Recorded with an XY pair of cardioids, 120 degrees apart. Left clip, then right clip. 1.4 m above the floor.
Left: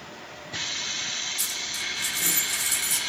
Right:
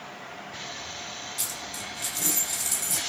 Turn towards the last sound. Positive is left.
turn(degrees=-20)